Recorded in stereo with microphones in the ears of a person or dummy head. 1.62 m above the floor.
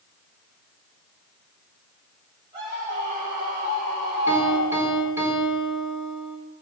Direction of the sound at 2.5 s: 30° right (ahead or behind).